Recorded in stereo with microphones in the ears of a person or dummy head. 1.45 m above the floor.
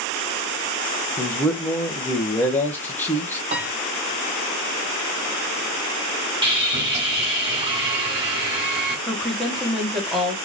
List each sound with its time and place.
1.2 s a man speaking: 10° left (ahead or behind), 0.9 m
3.5 s a piano: 35° right (ahead or behind), 1.5 m
6.4 s sawing: 25° right (ahead or behind), 2.5 m
9.1 s a woman speaking: centre (ahead or behind), 2 m